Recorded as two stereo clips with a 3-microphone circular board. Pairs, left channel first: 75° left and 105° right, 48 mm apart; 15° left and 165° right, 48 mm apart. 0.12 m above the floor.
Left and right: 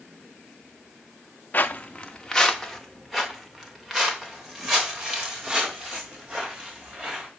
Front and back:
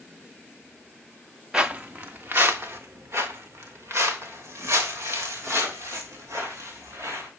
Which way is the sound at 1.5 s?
125° left.